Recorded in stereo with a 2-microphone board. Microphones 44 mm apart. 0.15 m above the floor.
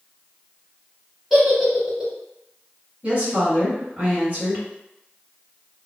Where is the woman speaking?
35° right (ahead or behind), 1.9 m.